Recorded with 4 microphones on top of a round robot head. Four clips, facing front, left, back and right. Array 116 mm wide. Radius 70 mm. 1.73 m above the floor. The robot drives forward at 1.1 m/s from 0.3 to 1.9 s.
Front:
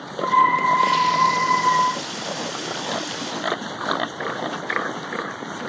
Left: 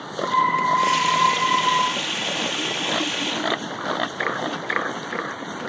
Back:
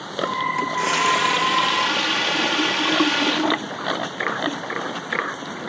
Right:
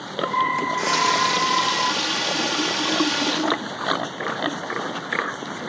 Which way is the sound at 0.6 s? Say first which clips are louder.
Left 3 dB, front 4 dB; 135° right.